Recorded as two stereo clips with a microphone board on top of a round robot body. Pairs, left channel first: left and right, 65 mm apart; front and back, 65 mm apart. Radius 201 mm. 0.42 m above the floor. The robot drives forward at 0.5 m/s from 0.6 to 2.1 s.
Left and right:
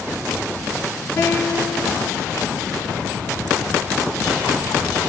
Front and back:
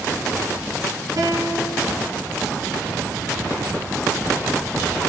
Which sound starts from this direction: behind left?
A guitar, at 1.2 s.